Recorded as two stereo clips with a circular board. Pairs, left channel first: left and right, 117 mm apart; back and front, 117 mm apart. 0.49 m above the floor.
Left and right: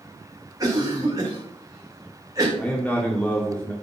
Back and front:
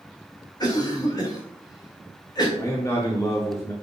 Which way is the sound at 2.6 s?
155° left.